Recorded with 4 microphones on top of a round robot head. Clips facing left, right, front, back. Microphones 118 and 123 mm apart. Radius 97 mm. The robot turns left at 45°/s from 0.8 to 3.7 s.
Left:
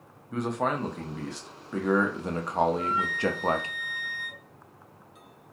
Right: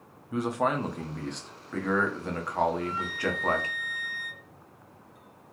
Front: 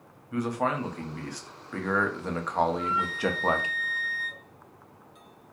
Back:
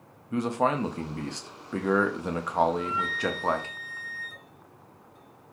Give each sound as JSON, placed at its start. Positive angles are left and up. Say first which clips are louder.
{"t": 0.3, "sound": "a man speaking", "louder": "right 1 dB, back 2 dB", "azimuth_deg": -170, "distance_m": 0.7}
{"t": 2.7, "sound": "a flute", "louder": "left 3 dB, even", "azimuth_deg": 65, "distance_m": 0.6}